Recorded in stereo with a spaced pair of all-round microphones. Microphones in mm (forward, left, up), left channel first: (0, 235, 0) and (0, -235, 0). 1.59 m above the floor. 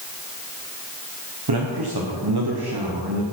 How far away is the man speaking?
About 1.2 m.